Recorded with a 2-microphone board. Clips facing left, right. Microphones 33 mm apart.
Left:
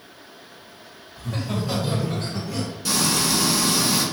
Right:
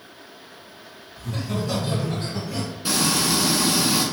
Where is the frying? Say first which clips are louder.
Right 1 dB; 25° right (ahead or behind), 1.0 m.